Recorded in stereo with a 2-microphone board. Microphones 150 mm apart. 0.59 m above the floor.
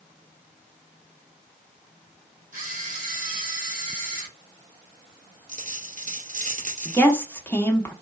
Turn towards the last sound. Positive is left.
turn(degrees=15)  # may be behind; listen again after turning